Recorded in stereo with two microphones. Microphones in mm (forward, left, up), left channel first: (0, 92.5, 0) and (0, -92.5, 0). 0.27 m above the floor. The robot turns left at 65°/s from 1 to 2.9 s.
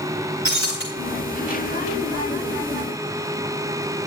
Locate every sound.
0.5 s breaking glass: 80° left, 6.5 m